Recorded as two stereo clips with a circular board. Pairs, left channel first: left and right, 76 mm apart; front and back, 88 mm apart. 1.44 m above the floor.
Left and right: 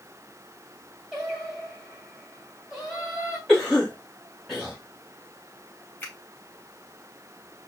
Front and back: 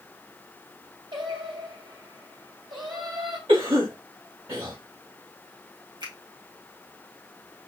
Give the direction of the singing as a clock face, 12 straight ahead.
6 o'clock.